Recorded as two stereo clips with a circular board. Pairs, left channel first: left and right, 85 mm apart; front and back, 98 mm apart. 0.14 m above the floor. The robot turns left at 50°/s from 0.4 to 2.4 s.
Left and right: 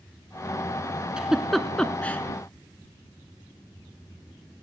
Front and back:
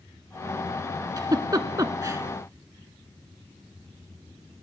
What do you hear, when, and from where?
1.2 s a giggle: 165° right, 0.8 m; by 2.2 s 145° left, 0.8 m